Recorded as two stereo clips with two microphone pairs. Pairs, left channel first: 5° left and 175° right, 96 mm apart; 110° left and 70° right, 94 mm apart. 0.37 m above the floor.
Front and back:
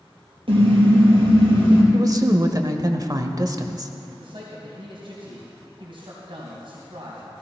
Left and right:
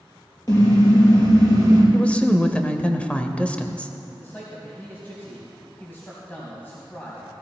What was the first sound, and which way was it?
A car horn, 160° left.